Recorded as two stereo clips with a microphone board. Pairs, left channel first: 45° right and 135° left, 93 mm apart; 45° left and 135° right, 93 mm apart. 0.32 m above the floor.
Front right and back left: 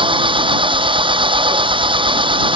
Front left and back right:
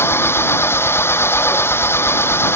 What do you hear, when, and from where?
0.0 s an engine running: 110° left